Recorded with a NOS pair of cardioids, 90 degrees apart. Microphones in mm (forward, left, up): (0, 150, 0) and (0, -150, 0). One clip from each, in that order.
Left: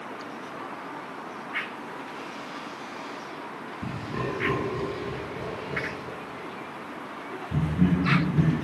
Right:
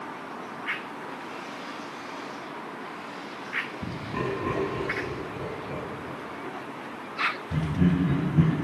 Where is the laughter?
15° right, 2.0 m; by 8.5 s 35° right, 6.5 m.